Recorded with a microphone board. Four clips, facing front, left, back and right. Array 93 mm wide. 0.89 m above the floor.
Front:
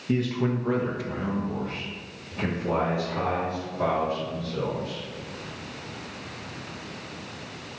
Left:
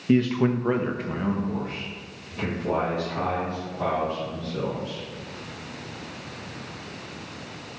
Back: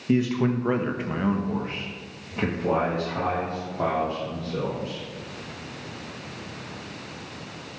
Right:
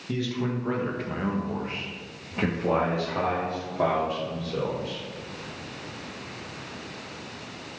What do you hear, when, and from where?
0.1 s a man speaking: 105° left, 1.0 m; by 5.0 s 115° right, 3 m